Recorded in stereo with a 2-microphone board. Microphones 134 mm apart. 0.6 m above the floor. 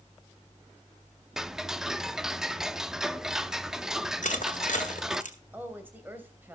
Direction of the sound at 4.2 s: 70° left (ahead or behind).